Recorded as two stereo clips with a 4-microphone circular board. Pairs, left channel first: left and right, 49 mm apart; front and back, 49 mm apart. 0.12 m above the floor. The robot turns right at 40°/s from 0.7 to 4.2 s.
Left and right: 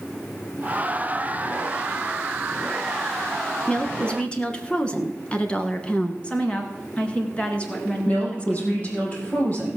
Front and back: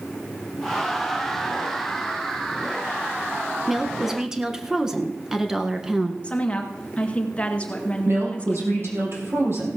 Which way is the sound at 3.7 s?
95° left.